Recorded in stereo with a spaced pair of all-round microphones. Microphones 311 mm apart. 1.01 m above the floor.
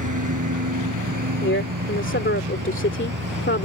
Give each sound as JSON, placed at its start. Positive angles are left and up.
{"t": 0.0, "sound": "a lawn mower", "side_deg": -75}
{"t": 1.4, "sound": "a woman speaking", "side_deg": 40}